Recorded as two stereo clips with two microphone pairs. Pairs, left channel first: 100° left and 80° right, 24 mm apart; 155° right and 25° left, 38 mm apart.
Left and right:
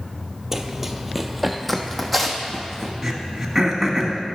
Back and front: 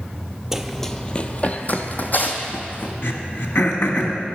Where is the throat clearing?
165° right, 1.2 m.